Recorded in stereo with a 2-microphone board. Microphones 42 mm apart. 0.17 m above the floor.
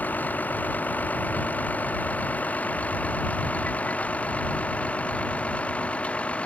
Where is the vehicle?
40° left (ahead or behind); by 6.5 s 30° left (ahead or behind).